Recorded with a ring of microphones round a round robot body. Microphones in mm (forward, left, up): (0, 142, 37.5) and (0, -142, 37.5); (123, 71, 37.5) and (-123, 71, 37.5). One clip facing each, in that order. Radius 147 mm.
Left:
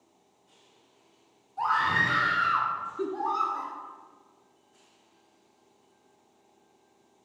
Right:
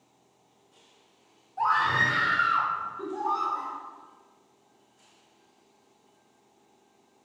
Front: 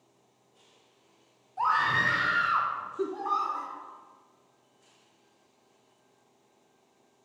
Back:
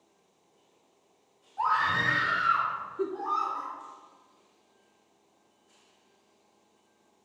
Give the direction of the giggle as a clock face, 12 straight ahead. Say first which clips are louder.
Left 3 dB, even; 10 o'clock.